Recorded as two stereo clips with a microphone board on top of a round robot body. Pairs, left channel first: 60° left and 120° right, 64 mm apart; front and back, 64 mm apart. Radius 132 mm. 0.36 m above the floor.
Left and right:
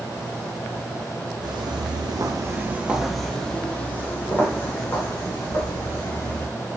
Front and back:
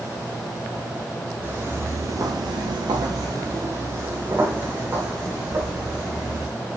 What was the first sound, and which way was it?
Footsteps, 115° right.